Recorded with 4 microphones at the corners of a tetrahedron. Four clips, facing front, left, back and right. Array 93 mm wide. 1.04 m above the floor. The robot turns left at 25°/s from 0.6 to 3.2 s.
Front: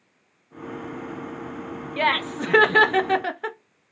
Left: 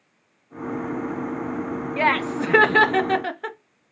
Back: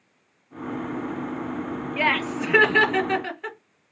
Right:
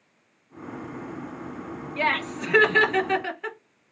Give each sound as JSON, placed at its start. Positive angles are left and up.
{"t": 2.0, "sound": "laughter", "azimuth_deg": 70, "distance_m": 1.1}